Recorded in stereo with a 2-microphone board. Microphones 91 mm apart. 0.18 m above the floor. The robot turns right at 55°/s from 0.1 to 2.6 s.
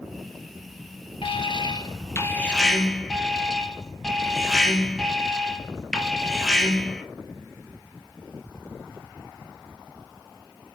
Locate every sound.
1.2 s an alarm: 100° left, 3 m; by 7.0 s 175° left, 3 m